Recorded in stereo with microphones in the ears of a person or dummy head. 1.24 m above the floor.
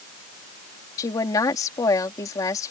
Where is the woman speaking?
20° left (ahead or behind).